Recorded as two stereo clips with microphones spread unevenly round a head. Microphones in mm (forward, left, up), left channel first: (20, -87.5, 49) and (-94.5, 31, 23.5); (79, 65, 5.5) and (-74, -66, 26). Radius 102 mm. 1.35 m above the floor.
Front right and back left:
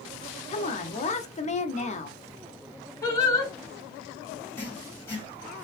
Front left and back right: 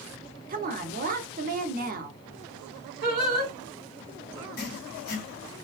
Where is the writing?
20° left, 0.8 m.